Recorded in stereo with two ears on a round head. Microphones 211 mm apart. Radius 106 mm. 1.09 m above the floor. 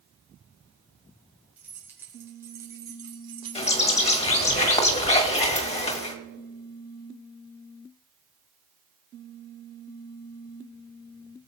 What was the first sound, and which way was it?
Keys jangling, 5° right (ahead or behind).